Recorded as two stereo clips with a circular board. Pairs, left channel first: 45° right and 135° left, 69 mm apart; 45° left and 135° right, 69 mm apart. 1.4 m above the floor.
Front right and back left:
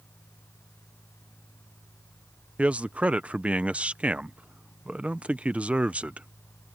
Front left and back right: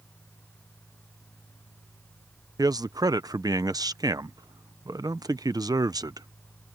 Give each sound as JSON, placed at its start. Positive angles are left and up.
{"t": 2.6, "sound": "a man speaking", "azimuth_deg": -155}